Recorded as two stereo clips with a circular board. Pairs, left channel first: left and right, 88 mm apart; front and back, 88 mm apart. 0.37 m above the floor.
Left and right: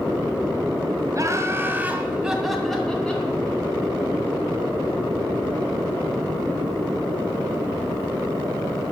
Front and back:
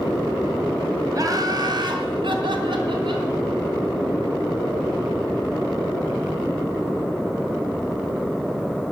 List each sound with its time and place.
1.1 s laughter: 135° right, 2.0 m; by 3.3 s 165° left, 2.5 m